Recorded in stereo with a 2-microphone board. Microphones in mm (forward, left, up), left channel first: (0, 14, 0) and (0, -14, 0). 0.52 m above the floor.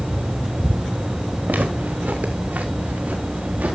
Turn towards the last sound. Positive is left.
turn(degrees=-65)  # may be behind; listen again after turning